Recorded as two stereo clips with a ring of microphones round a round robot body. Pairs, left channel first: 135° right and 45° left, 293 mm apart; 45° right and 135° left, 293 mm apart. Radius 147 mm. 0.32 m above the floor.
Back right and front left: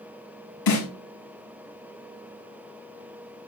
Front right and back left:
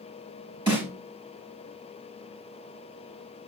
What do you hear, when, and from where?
0.7 s a snare drum: 150° right, 5 m